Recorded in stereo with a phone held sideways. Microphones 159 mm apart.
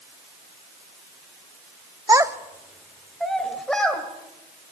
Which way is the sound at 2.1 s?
25° right (ahead or behind).